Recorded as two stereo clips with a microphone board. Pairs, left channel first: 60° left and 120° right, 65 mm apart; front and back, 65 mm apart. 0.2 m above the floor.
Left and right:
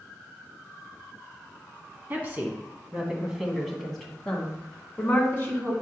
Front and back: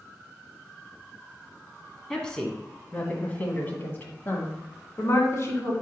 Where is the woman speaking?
80° right, 1.7 m; by 5.7 s 15° left, 2.0 m.